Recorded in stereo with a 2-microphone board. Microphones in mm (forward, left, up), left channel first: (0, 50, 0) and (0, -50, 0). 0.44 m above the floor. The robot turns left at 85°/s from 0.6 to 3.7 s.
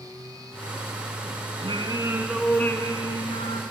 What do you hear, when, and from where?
1.6 s singing: 110° right, 1.0 m; by 3.6 s 80° left, 1.0 m